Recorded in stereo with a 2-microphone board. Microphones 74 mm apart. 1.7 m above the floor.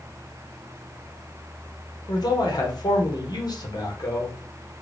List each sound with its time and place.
2.1 s a man speaking: 65° left (ahead or behind), 1.2 m